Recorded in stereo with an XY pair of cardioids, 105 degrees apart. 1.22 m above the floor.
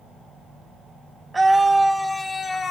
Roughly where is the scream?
Ahead.